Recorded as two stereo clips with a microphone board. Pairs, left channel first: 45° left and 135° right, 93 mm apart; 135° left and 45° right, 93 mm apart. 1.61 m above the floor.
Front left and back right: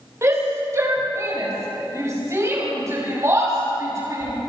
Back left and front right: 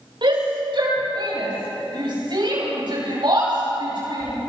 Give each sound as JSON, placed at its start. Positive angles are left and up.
{"t": 0.2, "sound": "a shout", "azimuth_deg": -75, "distance_m": 8.5}